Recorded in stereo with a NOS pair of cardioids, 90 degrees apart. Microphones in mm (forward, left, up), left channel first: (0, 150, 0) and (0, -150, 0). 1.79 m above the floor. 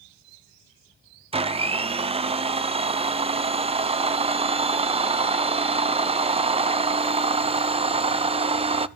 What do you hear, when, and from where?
1.3 s a blender: 20° right, 0.9 m